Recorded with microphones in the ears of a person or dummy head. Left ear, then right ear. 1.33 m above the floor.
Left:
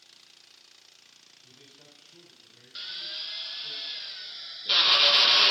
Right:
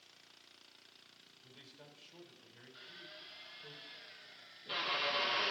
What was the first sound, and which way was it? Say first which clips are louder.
A man speaking: left 2 dB; 50° right (ahead or behind).